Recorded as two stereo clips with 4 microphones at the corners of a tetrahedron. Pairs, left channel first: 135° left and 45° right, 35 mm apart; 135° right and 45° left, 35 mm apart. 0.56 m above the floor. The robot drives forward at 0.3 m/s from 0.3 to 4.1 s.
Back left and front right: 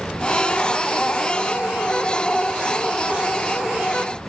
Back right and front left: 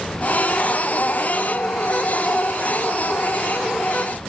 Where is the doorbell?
No doorbell in this recording.